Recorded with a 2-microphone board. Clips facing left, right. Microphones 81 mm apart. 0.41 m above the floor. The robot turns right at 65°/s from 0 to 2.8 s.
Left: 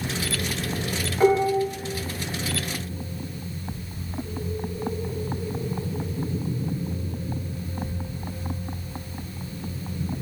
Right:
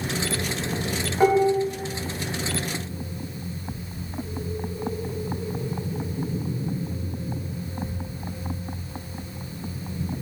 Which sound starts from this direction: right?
Dishes clattering, at 1.2 s.